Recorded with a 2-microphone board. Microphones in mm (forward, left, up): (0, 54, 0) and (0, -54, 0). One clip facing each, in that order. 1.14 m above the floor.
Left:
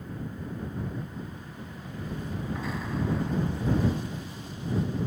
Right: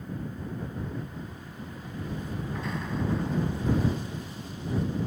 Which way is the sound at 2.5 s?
Centre (ahead or behind).